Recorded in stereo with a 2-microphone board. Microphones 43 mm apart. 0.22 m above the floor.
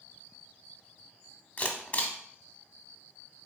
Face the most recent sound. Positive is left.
turn(degrees=30)  # may be behind; listen again after turning